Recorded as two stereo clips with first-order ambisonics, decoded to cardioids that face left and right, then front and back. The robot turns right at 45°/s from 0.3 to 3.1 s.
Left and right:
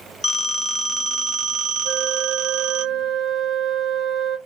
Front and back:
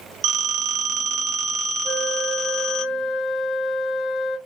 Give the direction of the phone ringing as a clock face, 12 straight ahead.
7 o'clock.